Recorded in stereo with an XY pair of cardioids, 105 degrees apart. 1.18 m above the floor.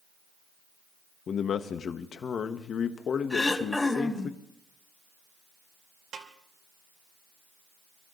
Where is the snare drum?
60° right, 3 m.